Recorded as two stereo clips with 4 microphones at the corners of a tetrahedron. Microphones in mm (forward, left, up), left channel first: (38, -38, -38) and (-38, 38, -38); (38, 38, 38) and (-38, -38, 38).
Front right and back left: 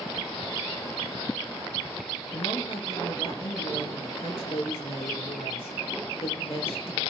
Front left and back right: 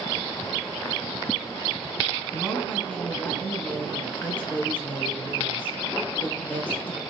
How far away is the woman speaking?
About 4 m.